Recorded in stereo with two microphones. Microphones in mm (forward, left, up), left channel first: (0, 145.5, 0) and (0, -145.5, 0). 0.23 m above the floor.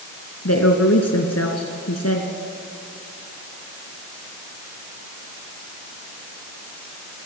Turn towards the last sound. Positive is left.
turn(degrees=60)  # may be behind; listen again after turning